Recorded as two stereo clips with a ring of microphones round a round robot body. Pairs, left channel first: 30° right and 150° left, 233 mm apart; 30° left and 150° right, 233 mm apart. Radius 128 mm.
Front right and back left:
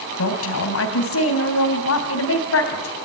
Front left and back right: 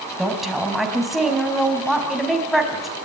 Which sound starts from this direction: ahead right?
A woman speaking, at 0.2 s.